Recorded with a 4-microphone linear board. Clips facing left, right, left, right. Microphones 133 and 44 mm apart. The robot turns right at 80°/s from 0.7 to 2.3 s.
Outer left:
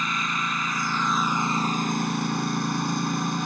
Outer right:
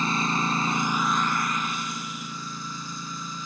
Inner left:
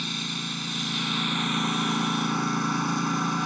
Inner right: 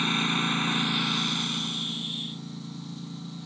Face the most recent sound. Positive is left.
turn(degrees=95)